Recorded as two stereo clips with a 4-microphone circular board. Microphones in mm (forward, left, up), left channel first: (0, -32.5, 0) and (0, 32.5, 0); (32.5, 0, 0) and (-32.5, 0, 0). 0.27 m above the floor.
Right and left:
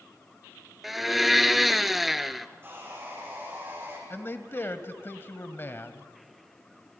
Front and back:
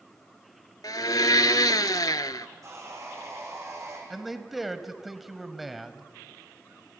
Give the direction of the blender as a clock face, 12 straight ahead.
12 o'clock.